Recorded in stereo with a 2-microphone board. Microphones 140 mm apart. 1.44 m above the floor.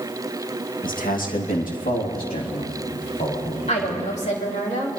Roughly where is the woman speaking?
Left.